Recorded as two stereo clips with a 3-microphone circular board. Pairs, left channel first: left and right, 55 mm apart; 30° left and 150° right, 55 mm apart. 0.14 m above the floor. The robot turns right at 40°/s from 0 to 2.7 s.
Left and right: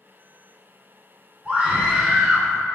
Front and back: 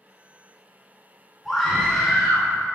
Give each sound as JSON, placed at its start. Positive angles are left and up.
{"t": 1.4, "sound": "a scream", "azimuth_deg": -65, "distance_m": 1.1}